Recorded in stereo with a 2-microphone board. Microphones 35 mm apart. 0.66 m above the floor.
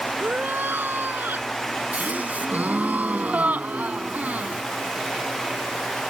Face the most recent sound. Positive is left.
turn(degrees=-50)  # may be behind; listen again after turning